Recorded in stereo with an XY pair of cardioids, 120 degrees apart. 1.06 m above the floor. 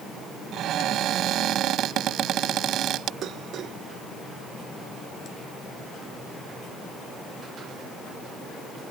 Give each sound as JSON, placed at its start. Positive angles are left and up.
{"t": 0.5, "sound": "a cupboard door", "azimuth_deg": -65}
{"t": 3.2, "sound": "dishes clattering", "azimuth_deg": -60}